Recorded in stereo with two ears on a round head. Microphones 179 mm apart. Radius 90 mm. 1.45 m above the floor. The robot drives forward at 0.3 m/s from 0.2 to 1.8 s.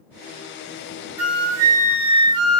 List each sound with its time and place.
1.2 s a flute: 25° right (ahead or behind), 1.1 m